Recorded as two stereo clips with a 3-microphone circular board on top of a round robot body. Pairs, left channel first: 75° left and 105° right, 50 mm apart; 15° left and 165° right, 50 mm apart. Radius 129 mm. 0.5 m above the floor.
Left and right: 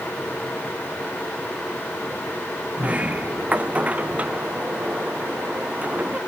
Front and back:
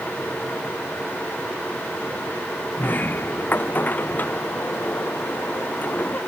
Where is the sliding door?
40° right.